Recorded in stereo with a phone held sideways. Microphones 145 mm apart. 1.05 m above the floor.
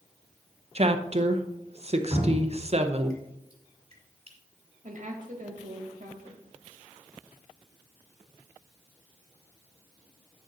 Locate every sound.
0.8 s a woman speaking: 50° right (ahead or behind), 0.7 m
2.1 s dripping: 45° right (ahead or behind), 2 m
4.8 s a woman speaking: 60° right (ahead or behind), 1.4 m